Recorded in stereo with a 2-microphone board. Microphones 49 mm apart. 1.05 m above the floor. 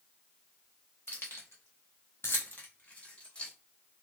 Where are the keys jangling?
50° left (ahead or behind), 0.9 m; by 3.5 s 20° left (ahead or behind), 1.3 m.